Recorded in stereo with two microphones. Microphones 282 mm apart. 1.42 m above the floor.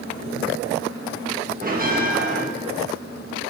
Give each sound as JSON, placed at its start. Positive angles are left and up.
{"t": 1.6, "sound": "a bell", "side_deg": -30, "distance_m": 1.5}